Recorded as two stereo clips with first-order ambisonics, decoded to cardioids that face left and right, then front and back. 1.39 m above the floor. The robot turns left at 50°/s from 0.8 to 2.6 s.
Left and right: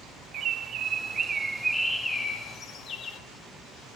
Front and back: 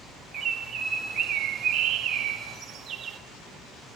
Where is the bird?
130° right, 1.0 m; by 3.2 s 140° left, 1.0 m.